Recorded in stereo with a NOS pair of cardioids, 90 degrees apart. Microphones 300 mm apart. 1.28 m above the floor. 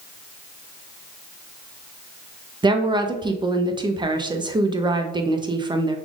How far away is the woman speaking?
About 0.8 m.